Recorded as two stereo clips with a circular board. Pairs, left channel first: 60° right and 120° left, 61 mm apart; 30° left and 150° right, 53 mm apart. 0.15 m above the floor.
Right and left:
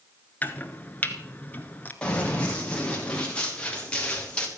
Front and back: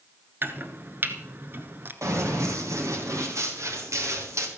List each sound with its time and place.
0.4 s chopping: 115° right, 1.3 m
2.0 s running footsteps: 135° right, 4.5 m